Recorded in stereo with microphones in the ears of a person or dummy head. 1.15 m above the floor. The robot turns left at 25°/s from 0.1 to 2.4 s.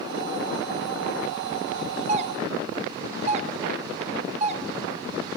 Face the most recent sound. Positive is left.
turn(degrees=-30)  # may be behind; listen again after turning